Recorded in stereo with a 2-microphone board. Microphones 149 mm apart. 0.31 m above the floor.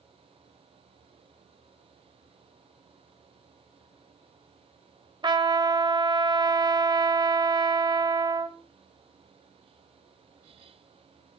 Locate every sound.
5.2 s a trumpet: 30° right (ahead or behind), 1.1 m